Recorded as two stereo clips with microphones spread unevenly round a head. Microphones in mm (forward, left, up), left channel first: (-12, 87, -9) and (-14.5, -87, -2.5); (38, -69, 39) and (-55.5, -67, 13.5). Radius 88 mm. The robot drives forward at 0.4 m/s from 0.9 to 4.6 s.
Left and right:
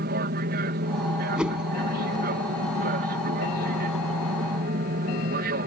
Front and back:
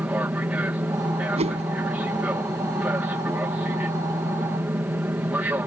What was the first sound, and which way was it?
An aircraft, 115° right.